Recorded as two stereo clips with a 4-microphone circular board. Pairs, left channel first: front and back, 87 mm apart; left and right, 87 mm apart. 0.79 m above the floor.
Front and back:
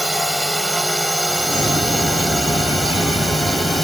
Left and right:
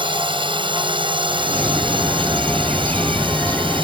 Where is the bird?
15° left.